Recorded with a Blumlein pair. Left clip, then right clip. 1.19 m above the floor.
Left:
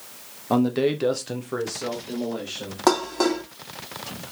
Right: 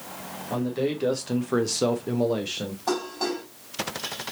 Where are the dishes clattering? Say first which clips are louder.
Left 7 dB; 45° left, 1.1 m.